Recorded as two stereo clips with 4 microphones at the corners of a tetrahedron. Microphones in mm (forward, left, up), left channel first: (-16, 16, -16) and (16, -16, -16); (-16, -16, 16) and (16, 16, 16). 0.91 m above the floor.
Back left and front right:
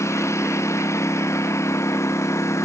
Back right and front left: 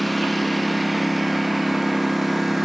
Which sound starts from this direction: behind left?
A lawn mower, at 0.0 s.